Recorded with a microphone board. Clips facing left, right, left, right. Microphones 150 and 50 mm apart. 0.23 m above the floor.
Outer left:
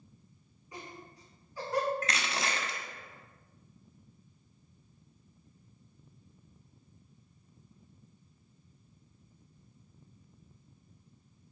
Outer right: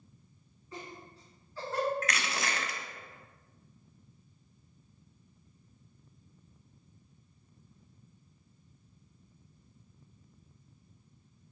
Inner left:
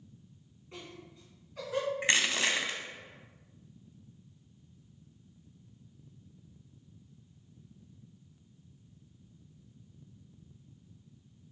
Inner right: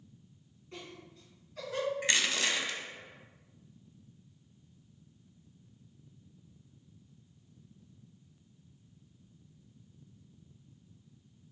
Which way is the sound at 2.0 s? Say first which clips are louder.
Even, inner left 3 dB; 30° left (ahead or behind).